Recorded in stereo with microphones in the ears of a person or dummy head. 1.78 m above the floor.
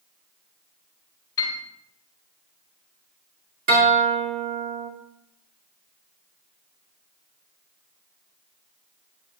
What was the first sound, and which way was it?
A piano, 20° left (ahead or behind).